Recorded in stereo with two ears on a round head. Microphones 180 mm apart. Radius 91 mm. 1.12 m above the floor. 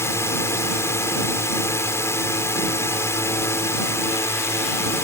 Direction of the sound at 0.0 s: 15° left (ahead or behind).